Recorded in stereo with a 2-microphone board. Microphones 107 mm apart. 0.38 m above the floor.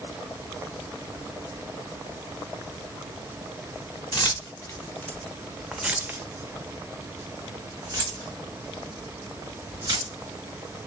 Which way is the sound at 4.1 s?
40° left (ahead or behind).